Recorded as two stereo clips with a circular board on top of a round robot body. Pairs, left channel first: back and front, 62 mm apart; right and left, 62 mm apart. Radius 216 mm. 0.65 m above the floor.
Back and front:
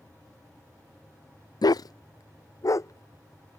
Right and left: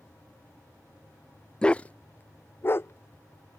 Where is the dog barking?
170° right; by 3.6 s 140° right.